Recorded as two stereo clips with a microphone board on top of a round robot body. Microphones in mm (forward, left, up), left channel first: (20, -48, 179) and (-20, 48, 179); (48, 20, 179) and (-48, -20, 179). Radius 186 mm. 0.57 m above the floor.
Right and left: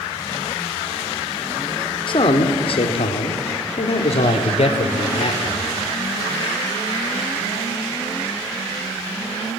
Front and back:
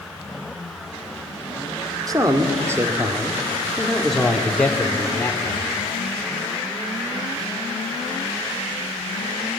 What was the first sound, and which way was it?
A man speaking, 105° right.